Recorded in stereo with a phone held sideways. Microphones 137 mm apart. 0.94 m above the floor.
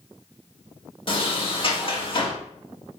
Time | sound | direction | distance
1.1 | a sliding door | 40° left (ahead or behind) | 1.8 m